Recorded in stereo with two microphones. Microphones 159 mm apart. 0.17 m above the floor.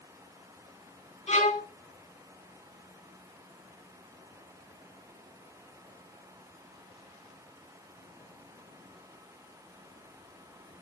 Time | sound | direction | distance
1.3 | a violin | 45° left (ahead or behind) | 3 m